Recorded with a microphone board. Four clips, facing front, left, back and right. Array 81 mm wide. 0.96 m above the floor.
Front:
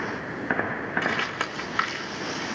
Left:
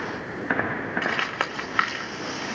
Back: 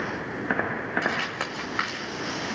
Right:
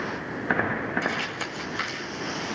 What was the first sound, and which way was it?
Crumpling, 85° left.